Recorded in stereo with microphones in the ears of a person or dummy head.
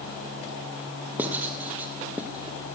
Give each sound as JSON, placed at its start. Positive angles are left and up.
{"t": 1.2, "sound": "writing", "side_deg": -10, "distance_m": 0.7}